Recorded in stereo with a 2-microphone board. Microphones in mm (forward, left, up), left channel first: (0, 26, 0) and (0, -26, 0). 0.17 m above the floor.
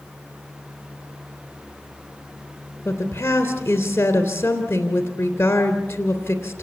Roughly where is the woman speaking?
Left.